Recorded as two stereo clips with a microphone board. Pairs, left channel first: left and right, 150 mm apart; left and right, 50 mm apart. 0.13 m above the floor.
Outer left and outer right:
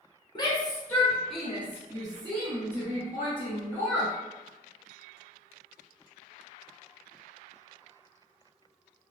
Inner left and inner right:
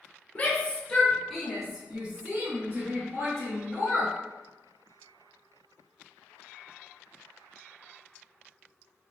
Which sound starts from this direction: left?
A shout, at 0.3 s.